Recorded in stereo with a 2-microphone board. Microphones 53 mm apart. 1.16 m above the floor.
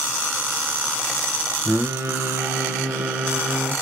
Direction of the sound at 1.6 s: 55° right (ahead or behind).